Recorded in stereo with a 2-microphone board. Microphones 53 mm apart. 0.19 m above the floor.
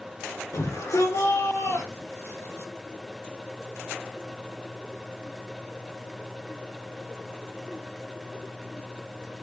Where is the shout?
70° left (ahead or behind), 6 m; by 2.7 s 65° left (ahead or behind), 3.5 m.